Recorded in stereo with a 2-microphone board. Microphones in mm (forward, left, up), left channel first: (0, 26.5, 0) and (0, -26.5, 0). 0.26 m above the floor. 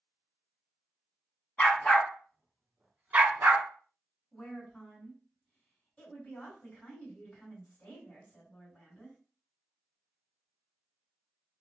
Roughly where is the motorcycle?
No motorcycle in this recording.